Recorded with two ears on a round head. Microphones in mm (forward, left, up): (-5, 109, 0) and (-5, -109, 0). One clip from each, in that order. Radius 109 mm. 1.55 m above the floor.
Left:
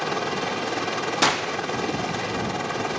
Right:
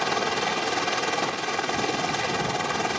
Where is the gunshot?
60° left (ahead or behind).